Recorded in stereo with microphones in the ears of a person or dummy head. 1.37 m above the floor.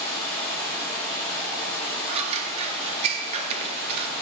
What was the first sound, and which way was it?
Running water, 5° left (ahead or behind).